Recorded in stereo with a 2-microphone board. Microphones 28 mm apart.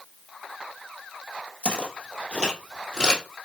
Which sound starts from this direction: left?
Footsteps, at 1.6 s.